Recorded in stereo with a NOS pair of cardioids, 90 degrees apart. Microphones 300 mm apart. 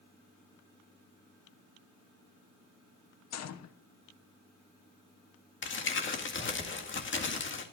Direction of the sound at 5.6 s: 40° left.